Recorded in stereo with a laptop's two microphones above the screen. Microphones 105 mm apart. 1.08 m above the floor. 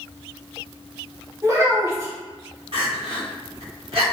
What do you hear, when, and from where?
1.4 s a child speaking: 25° right (ahead or behind), 1.1 m
2.7 s crying: 60° right (ahead or behind), 1.1 m